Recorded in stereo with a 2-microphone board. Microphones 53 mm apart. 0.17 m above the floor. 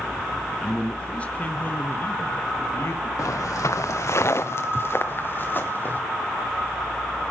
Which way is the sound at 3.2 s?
80° left.